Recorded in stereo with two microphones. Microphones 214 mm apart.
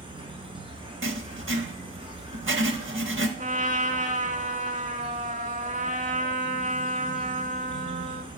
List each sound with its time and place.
0.0 s an insect: 25° right (ahead or behind), 1.4 m
1.0 s writing: 70° right (ahead or behind), 0.7 m
3.4 s a trumpet: 40° right (ahead or behind), 0.8 m